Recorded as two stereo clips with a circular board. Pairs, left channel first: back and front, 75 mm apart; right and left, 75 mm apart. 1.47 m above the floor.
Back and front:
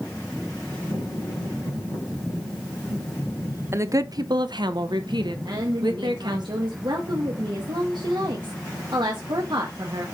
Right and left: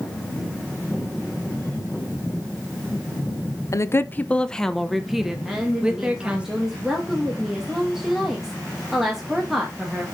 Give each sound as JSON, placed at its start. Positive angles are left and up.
{"t": 3.7, "sound": "a woman speaking", "azimuth_deg": -50, "distance_m": 0.6}
{"t": 5.5, "sound": "a woman speaking", "azimuth_deg": 5, "distance_m": 1.9}